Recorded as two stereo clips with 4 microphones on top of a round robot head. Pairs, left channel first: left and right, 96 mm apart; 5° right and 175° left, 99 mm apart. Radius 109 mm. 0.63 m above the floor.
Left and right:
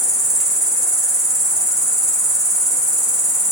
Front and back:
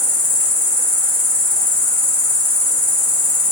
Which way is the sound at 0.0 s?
170° right.